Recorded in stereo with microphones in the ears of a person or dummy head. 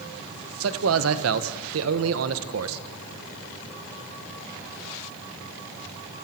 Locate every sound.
0.6 s a man speaking: 85° right, 1.6 m